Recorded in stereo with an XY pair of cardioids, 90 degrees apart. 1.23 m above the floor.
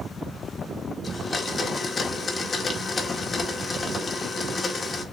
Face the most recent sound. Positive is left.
turn(degrees=40)